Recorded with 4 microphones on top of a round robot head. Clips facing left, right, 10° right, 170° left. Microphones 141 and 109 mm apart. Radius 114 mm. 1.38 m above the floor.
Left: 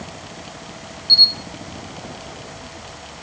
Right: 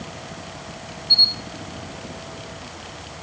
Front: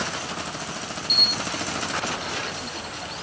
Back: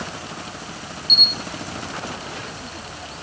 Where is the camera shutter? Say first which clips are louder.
Left 1 dB, back 2 dB; 145° left, 1.6 m.